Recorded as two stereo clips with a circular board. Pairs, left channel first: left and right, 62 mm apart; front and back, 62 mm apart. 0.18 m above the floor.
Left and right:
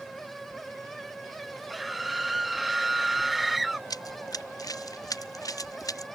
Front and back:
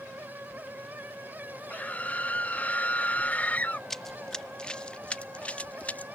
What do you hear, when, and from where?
1.7 s a scream: 5° right
3.9 s running footsteps: 85° left; by 6.1 s 65° left